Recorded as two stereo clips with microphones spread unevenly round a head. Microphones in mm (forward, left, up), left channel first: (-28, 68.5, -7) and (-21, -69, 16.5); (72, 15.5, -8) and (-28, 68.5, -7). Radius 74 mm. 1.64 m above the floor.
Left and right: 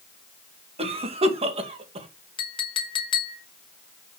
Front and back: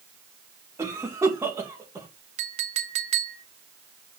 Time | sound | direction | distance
0.8 | a cough | 135° right | 2 m
2.4 | a clink | 150° left | 1.4 m